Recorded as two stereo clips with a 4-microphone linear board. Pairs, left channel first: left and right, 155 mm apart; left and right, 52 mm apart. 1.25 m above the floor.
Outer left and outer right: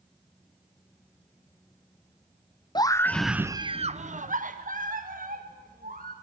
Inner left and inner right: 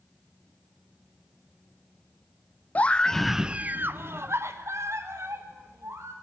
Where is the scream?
25° left (ahead or behind), 0.7 m; by 6.1 s 60° right (ahead or behind), 2 m.